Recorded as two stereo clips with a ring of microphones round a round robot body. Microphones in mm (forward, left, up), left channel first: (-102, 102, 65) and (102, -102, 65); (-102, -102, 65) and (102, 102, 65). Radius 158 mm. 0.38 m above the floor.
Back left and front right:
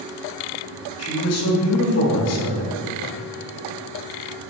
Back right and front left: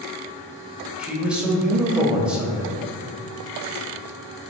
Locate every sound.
1.0 s a man speaking: 130° left, 2 m